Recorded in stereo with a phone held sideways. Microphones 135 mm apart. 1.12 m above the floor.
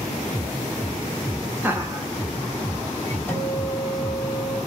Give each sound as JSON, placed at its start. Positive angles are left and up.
{"t": 1.6, "sound": "laughter", "side_deg": -15, "distance_m": 1.1}
{"t": 3.3, "sound": "a guitar", "side_deg": 10, "distance_m": 1.7}